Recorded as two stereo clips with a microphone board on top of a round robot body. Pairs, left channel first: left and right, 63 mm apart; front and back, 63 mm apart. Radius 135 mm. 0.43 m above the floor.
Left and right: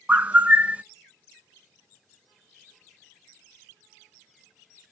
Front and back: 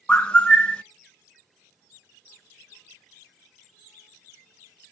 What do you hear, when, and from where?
0.1 s a bird: 55° right, 0.5 m